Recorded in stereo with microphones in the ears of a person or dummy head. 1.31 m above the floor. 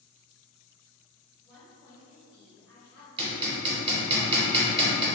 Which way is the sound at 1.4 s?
20° left (ahead or behind).